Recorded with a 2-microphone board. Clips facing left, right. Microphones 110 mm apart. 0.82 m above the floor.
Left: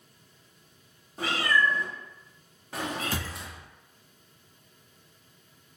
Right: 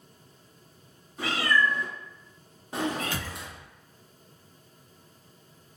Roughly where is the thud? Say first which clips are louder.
Left 1 dB; left.